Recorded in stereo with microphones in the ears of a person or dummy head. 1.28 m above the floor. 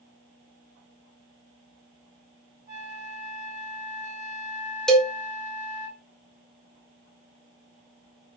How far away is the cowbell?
About 0.6 m.